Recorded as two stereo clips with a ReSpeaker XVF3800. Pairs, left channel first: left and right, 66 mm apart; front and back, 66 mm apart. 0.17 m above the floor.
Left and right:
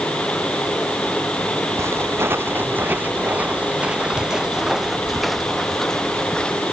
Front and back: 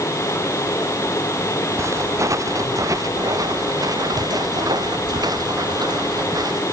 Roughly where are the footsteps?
Behind right.